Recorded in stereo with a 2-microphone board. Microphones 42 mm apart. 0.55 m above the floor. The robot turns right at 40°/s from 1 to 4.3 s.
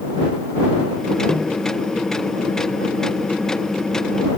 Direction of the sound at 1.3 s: 20° left (ahead or behind).